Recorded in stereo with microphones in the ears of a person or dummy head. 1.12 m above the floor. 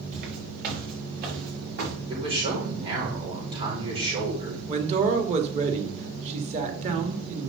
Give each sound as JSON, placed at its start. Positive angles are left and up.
{"t": 0.1, "sound": "footsteps", "side_deg": -45, "distance_m": 6.5}
{"t": 2.1, "sound": "a man speaking", "side_deg": -30, "distance_m": 5.0}
{"t": 4.7, "sound": "a man speaking", "side_deg": -35, "distance_m": 2.0}